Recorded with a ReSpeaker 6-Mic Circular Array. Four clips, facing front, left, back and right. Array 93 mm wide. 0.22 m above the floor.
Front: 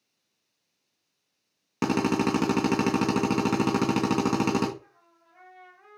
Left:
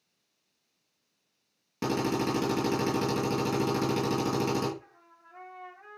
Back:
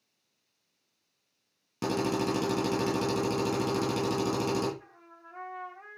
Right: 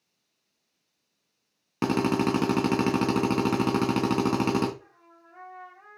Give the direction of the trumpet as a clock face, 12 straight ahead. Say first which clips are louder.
Right 2 dB, back 6 dB; 6 o'clock.